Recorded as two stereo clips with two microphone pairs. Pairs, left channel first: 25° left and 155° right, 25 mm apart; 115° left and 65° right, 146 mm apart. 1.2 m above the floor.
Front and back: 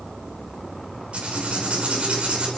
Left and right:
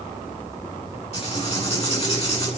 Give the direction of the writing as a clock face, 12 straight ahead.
7 o'clock.